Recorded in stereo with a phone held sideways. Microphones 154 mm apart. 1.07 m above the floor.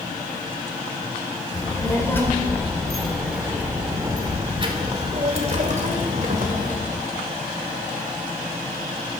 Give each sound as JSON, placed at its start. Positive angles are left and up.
{"t": 1.5, "sound": "a child speaking", "side_deg": 25, "distance_m": 2.0}